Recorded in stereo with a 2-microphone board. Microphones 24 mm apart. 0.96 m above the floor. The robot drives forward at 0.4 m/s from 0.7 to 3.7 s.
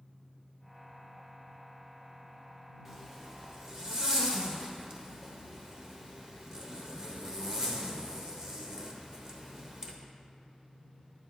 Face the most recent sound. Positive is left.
turn(degrees=-35)  # may be behind; listen again after turning